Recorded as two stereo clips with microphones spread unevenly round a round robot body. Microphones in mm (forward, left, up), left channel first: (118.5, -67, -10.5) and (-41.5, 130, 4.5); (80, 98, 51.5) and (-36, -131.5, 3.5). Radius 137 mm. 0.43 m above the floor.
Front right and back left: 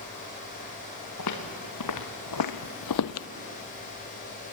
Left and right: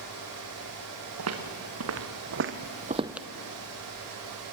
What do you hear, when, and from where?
1.2 s footsteps: 85° right, 3 m; by 3.3 s 15° right, 0.7 m